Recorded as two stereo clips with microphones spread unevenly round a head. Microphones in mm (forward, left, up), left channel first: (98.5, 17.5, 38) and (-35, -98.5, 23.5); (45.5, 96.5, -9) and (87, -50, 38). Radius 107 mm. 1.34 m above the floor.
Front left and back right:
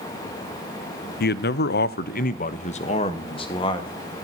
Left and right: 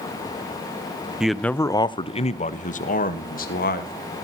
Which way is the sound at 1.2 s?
25° left.